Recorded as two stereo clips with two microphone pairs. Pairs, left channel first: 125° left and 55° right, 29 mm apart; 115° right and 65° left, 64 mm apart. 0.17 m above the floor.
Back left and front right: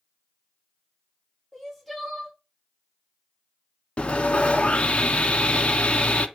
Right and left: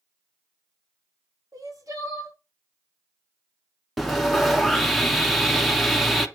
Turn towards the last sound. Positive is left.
turn(degrees=155)